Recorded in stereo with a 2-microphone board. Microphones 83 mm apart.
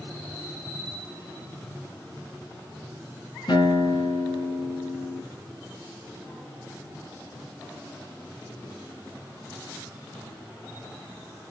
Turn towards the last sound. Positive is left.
turn(degrees=60)  # may be behind; listen again after turning